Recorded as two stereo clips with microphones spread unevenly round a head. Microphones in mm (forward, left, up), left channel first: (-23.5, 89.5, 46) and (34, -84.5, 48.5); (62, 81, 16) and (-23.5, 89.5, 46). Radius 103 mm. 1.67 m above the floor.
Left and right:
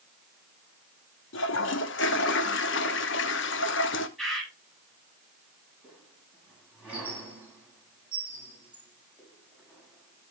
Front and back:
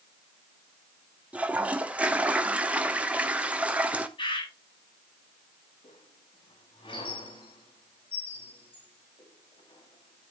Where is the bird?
15° left, 6.5 m.